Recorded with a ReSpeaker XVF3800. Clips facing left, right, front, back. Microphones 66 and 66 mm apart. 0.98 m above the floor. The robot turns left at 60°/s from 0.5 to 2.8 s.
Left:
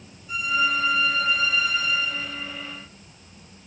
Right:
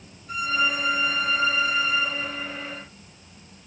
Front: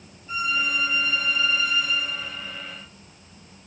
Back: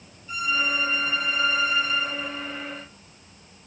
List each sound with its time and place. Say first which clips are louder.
0.3 s a violin: left 1 dB, even; 60° right, 1.4 m; by 2.8 s 160° left, 1.4 m